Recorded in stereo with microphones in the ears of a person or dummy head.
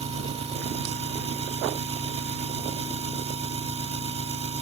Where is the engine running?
30° right (ahead or behind).